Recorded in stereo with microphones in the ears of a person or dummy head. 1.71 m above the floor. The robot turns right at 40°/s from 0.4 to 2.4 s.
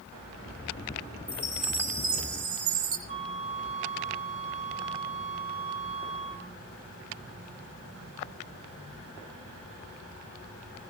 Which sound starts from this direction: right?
A flute, at 3.1 s.